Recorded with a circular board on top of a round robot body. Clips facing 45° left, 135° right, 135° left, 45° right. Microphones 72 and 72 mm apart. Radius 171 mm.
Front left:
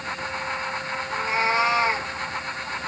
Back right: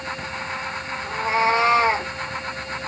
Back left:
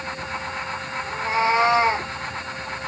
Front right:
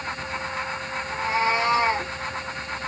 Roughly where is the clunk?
No clunk in this recording.